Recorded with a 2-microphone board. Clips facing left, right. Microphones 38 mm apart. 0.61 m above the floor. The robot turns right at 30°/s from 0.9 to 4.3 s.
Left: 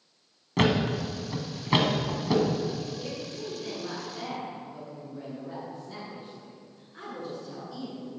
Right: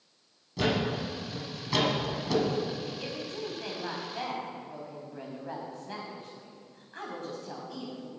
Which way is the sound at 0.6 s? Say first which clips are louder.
Left 4 dB; 55° left (ahead or behind).